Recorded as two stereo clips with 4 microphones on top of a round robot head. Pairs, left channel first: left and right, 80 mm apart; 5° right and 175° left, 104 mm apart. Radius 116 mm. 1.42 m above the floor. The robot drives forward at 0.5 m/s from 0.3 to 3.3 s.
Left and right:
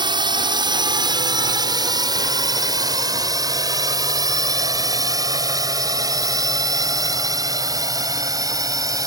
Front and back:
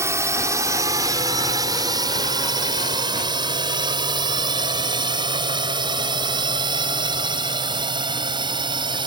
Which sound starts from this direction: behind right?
A drone, at 0.0 s.